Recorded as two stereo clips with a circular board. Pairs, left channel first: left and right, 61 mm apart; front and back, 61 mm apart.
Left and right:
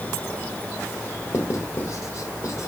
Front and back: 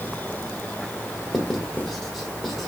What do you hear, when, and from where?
1.3 s writing: 85° left, 2 m